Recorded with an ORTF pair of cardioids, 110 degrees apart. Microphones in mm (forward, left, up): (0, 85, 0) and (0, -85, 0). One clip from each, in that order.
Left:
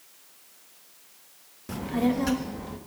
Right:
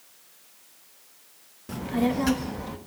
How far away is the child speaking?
About 0.8 m.